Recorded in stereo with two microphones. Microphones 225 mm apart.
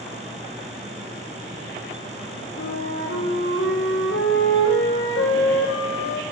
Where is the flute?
65° left (ahead or behind), 4.5 m.